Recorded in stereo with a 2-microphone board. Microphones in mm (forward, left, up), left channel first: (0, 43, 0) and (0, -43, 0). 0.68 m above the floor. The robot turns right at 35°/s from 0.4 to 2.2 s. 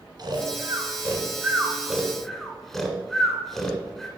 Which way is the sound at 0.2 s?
55° right (ahead or behind).